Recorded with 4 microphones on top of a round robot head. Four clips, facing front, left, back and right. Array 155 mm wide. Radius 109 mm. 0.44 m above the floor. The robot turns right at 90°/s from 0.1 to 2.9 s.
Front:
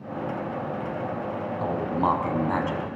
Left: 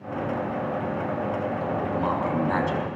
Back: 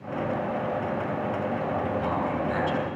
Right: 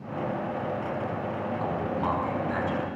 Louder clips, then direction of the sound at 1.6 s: Left 2 dB, front 2 dB; 40° right.